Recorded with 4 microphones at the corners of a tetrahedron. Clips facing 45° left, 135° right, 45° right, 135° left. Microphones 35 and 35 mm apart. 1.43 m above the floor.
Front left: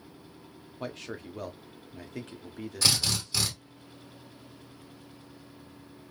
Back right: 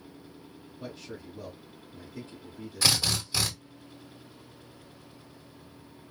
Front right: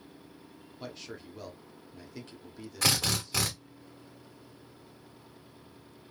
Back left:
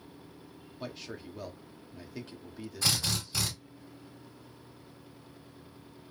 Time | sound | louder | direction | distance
0.8 | a man speaking | front left 4 dB, back left 1 dB | 55° left | 0.5 m
2.8 | a drill | back right 1 dB, front right 3 dB | 55° right | 1.4 m